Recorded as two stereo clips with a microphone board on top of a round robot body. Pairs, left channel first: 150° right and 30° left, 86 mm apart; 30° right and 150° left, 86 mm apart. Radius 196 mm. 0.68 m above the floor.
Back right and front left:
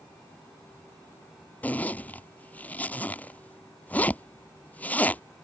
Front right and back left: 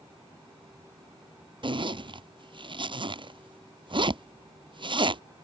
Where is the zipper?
140° left.